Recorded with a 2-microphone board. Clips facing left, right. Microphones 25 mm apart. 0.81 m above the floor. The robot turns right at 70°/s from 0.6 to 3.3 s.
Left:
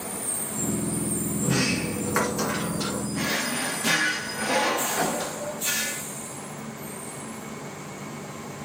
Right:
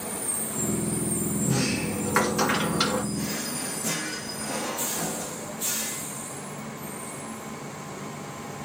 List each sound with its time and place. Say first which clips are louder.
1.4 s a sliding door: left 3 dB; 140° left, 1.7 m; by 3.0 s 105° right, 1.7 m
3.1 s a drawer: left 4 dB; 45° left (ahead or behind), 0.7 m; by 6.0 s 55° left (ahead or behind), 0.7 m